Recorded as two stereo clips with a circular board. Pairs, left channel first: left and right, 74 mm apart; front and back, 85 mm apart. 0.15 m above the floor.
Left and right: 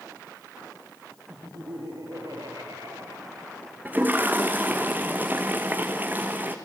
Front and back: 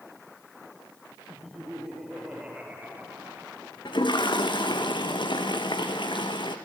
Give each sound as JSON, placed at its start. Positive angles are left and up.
{"t": 1.3, "sound": "laughter", "azimuth_deg": -90, "distance_m": 4.5}
{"t": 3.9, "sound": "a toilet flushing", "azimuth_deg": -25, "distance_m": 1.7}